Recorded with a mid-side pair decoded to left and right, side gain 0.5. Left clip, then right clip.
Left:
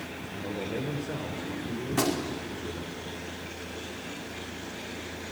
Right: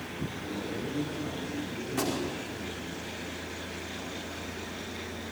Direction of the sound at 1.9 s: 30° left.